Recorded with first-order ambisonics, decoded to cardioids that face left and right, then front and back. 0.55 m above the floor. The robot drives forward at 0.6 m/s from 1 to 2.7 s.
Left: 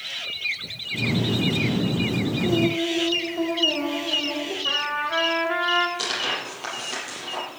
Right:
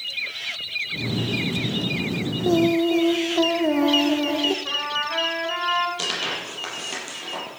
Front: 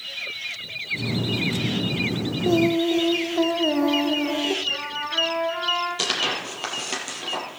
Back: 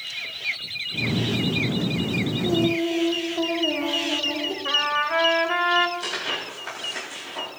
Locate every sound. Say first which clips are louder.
2.4 s singing: right 5 dB, front 4 dB; 50° right, 1.1 m; by 4.5 s 60° right, 1.1 m
4.7 s a trumpet: left 1 dB, back 5 dB; 170° left, 2 m
6.0 s tearing paper: even, front 4 dB; 15° right, 5.5 m